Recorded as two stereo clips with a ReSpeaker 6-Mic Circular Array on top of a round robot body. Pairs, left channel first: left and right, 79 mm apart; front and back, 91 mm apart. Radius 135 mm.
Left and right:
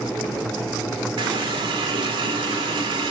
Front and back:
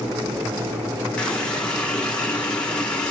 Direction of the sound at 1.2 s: 80° right.